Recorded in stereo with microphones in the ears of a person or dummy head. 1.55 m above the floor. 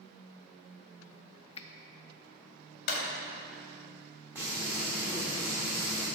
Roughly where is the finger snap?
Left.